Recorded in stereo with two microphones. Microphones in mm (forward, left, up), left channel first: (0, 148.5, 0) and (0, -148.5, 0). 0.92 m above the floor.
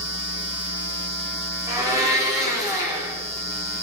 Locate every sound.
1.7 s a blender: 10° right (ahead or behind), 1.4 m